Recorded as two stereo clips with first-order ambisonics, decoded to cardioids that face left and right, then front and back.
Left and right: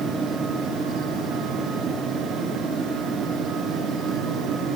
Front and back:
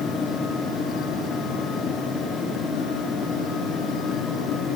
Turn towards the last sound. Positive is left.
No sound to turn to.